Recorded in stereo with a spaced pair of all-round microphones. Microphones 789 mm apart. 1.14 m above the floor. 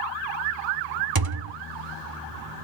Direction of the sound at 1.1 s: 30° right (ahead or behind).